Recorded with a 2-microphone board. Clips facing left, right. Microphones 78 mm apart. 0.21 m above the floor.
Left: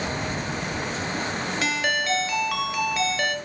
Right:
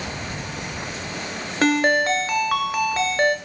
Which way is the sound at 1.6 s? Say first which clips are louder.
Right 9 dB; 45° right (ahead or behind).